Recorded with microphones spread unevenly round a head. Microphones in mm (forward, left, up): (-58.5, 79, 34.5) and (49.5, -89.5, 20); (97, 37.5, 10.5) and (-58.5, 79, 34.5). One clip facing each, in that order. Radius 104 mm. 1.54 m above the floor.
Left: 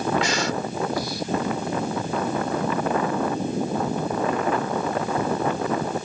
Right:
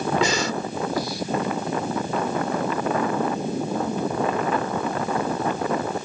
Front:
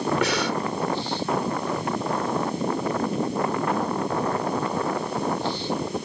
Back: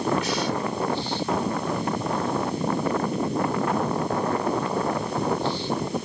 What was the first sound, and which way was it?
Breathing, 65° right.